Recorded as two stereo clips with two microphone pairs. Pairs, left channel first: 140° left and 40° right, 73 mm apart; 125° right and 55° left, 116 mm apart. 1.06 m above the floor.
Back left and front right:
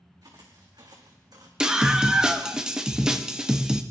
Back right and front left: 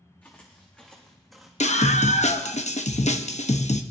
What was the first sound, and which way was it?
Footsteps, 55° right.